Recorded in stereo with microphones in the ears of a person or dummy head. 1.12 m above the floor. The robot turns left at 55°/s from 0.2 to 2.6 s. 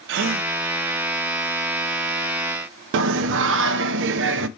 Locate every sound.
0.1 s a gasp: 60° right (ahead or behind), 0.9 m; by 0.5 s 55° right (ahead or behind), 0.9 m
2.9 s singing: 70° right (ahead or behind), 0.7 m